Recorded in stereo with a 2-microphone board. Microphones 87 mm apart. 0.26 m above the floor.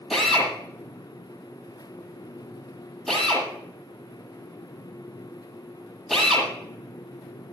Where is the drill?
Centre (ahead or behind), 7.5 m.